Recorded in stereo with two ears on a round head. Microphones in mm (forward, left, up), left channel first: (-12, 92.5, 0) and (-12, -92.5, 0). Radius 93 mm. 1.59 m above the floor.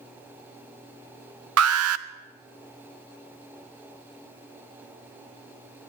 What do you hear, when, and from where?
1.6 s an alarm: 85° right, 0.7 m